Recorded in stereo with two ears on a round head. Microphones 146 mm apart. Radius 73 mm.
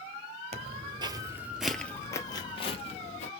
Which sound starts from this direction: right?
Footsteps, at 0.5 s.